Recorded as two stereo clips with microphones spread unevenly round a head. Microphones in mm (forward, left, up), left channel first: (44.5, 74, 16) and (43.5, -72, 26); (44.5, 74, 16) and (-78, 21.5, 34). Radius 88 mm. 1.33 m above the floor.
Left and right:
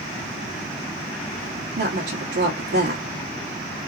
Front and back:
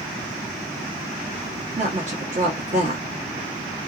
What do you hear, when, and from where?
1.8 s a woman speaking: 110° right, 1.3 m